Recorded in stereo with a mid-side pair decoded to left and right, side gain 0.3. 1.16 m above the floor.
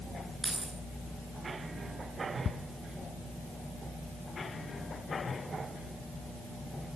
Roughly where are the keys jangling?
Ahead right.